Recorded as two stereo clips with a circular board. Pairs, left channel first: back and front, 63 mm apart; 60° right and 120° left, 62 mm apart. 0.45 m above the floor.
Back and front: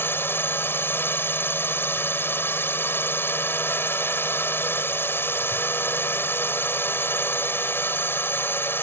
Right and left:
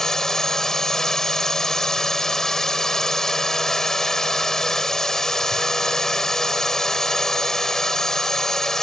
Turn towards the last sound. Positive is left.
turn(degrees=-140)